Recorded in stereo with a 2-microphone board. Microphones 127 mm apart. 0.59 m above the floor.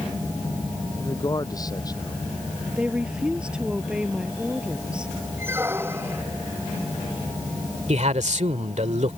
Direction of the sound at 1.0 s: 30° left (ahead or behind).